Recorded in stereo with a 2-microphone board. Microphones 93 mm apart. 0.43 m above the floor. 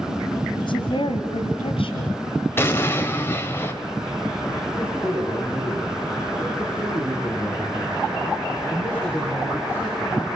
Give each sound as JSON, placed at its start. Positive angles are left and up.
{"t": 0.6, "sound": "a woman speaking", "side_deg": 60, "distance_m": 2.0}
{"t": 2.6, "sound": "an explosion", "side_deg": 25, "distance_m": 1.9}
{"t": 4.7, "sound": "a man speaking", "side_deg": 20, "distance_m": 9.5}